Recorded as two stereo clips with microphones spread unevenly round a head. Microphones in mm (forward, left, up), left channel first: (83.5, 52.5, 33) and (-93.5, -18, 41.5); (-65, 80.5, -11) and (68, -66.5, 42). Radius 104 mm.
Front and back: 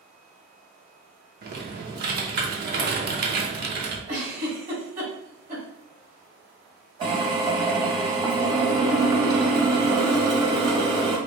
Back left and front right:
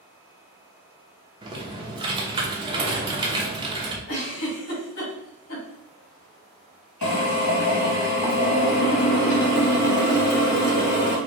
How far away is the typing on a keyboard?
About 0.8 m.